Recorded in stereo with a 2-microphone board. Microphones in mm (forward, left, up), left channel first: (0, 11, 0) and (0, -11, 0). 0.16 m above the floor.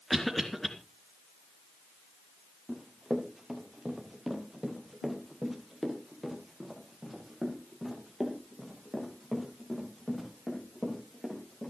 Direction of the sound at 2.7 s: 10° right (ahead or behind).